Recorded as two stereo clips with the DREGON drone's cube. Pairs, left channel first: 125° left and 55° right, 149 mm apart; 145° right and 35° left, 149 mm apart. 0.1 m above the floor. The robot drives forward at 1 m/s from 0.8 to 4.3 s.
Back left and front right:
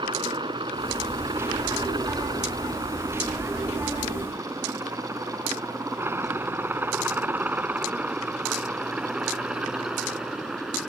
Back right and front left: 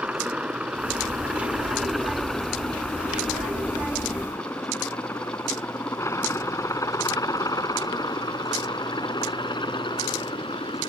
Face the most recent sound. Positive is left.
turn(degrees=-140)